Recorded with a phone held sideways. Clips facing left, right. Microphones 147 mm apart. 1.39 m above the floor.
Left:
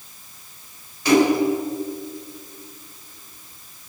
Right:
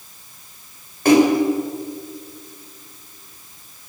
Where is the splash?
55° right (ahead or behind), 7 m.